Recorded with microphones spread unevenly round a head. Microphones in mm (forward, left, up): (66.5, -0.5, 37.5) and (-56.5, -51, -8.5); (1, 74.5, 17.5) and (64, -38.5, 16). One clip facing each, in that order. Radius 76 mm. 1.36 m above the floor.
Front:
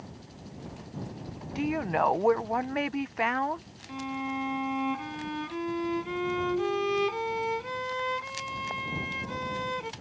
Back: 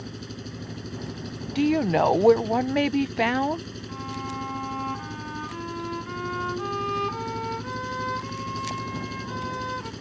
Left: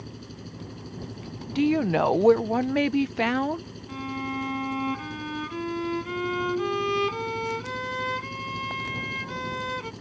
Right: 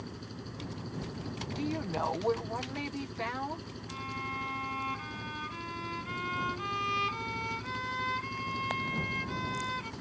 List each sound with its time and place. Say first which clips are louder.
0.0 s an engine running: back 9 dB, left 2 dB; 165° right
1.6 s a woman speaking: back 7 dB, left 13 dB; 150° left
3.9 s a violin: front 2 dB, left 9 dB; 90° left